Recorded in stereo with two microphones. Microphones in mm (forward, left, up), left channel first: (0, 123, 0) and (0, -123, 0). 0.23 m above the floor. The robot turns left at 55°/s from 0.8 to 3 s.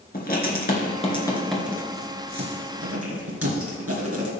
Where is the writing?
35° left (ahead or behind), 2.5 m; by 4.3 s 70° right (ahead or behind), 2.5 m.